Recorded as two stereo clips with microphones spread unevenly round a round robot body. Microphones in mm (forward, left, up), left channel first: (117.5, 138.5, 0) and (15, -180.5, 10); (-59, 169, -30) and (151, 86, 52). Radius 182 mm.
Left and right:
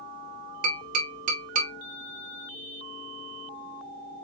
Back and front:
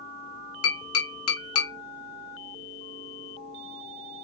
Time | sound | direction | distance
0.6 | tapping | straight behind | 1.5 m